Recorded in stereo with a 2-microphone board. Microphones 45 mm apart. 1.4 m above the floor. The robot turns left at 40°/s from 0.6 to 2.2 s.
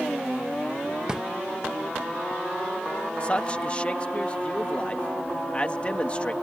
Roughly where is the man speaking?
Left.